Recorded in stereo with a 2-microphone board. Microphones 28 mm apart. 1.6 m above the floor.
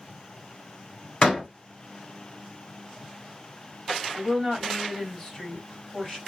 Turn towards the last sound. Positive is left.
turn(degrees=10)  # may be behind; listen again after turning